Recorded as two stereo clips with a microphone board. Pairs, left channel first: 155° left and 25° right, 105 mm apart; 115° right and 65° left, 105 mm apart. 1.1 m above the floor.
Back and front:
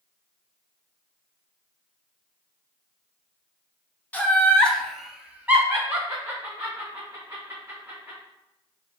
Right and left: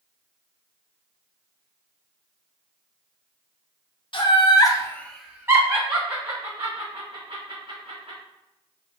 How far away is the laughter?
About 1.0 m.